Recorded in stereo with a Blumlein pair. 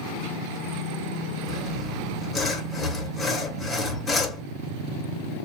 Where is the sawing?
10° left, 1.2 m.